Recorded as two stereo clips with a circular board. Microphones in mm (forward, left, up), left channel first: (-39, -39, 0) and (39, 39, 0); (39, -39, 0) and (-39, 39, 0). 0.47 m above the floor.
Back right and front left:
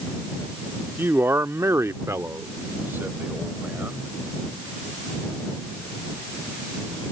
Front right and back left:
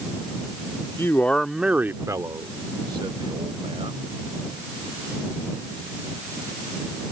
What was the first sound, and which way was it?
A man speaking, 10° right.